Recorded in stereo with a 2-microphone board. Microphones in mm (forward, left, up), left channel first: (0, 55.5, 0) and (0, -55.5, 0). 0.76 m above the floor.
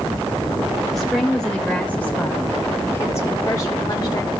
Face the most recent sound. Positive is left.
turn(degrees=40)  # may be behind; listen again after turning